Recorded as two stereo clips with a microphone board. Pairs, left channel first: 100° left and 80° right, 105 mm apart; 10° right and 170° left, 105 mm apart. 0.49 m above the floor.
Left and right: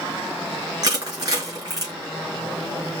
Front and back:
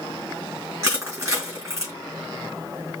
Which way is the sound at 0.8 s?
130° right.